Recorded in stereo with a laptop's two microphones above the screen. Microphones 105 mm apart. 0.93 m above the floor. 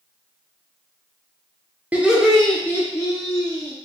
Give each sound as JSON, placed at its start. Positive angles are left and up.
{"t": 1.9, "sound": "laughter", "side_deg": -15, "distance_m": 0.8}